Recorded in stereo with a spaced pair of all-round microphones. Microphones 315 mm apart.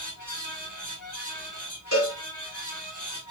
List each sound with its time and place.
0.0 s a fan: 75° left (ahead or behind), 2.0 m
1.9 s a cowbell: 60° left (ahead or behind), 3 m